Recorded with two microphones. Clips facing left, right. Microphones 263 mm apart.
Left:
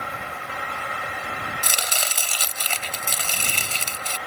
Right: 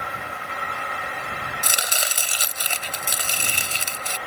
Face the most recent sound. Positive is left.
turn(degrees=-15)  # may be behind; listen again after turning